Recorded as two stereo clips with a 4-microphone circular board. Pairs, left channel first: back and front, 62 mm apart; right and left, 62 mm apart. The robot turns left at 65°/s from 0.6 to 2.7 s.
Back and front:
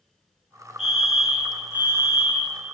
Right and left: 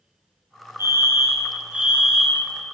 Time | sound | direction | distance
0.8 | a fire alarm | 95° left | 2.5 m